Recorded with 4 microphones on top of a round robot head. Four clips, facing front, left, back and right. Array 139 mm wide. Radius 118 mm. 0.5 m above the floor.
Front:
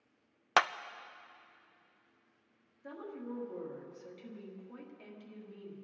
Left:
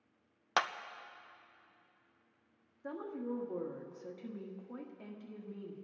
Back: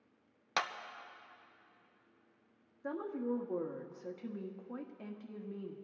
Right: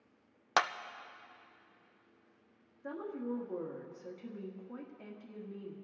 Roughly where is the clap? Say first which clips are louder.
Right 3 dB, front 8 dB; ahead.